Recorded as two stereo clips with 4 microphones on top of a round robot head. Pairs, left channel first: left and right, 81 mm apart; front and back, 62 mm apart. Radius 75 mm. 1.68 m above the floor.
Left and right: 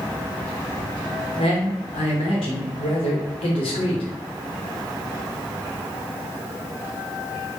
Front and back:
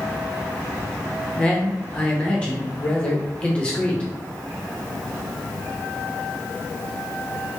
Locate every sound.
1.4 s a man speaking: 70° left, 0.8 m